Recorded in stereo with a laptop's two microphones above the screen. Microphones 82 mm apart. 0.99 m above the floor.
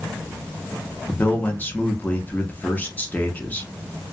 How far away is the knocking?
I don't hear knocking.